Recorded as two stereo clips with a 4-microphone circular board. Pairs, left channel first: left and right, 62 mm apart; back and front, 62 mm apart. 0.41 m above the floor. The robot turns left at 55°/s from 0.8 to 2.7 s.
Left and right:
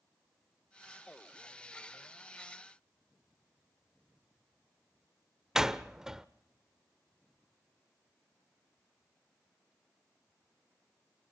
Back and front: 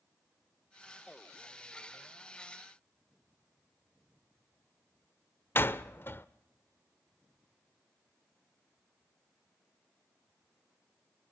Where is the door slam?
170° right, 0.8 m.